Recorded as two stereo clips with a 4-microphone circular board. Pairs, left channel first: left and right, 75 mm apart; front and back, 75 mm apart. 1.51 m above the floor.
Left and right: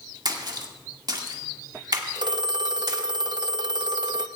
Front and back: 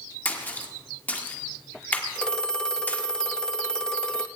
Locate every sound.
0.2 s a splash: 70° right, 1.9 m
2.1 s a phone ringing: 80° right, 0.8 m